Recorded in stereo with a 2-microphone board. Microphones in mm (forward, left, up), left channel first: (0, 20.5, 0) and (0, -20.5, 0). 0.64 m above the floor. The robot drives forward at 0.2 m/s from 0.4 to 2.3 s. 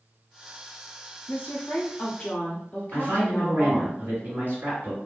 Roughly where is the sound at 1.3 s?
Left.